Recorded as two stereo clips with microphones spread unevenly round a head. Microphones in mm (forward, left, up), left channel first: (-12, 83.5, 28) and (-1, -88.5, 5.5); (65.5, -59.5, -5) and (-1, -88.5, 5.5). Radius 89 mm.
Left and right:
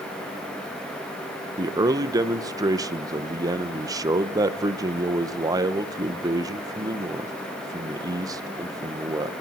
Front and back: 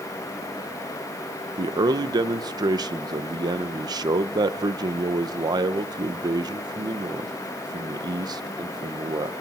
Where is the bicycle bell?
I don't hear a bicycle bell.